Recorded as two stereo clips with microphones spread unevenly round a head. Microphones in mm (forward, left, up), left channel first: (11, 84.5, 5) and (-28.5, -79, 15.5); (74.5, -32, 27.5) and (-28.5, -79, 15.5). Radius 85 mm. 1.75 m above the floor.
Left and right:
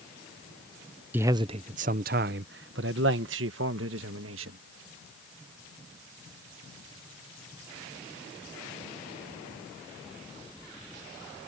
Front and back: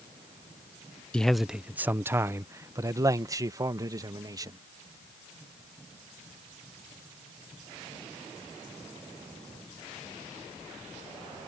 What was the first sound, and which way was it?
A man speaking, 40° right.